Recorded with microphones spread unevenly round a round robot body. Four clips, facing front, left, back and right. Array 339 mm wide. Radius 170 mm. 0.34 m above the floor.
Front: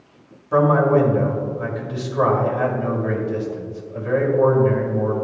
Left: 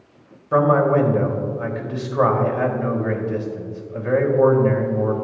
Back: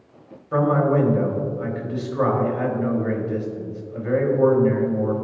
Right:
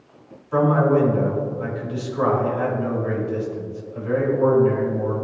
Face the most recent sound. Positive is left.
turn(degrees=85)